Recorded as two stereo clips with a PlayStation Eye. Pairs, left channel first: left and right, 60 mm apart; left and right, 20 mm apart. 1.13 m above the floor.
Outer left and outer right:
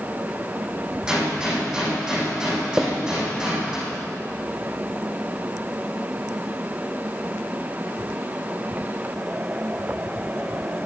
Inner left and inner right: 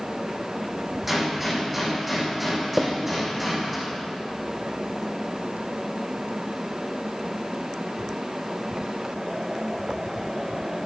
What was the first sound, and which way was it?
A gunshot, 10° right (ahead or behind).